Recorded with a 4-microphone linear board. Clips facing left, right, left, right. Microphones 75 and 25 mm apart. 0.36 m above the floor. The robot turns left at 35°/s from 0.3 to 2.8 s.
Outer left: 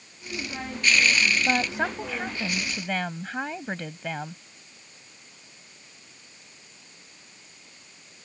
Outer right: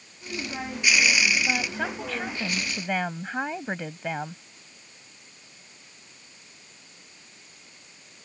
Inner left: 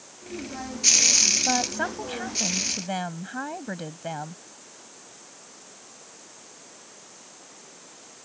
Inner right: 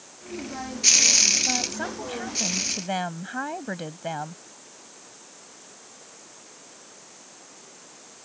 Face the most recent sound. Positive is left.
turn(degrees=-15)